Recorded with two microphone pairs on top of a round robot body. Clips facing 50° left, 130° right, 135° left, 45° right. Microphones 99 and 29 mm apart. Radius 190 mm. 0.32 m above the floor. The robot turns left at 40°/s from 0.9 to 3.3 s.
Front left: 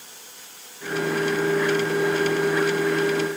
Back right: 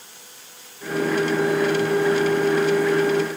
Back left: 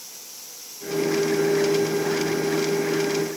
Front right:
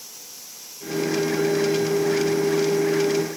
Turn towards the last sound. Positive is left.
No sound to turn to.